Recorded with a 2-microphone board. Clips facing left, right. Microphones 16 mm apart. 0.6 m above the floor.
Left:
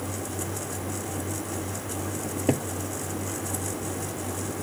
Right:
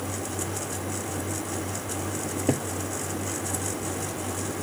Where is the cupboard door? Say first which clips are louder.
Left 1 dB; 10° left (ahead or behind).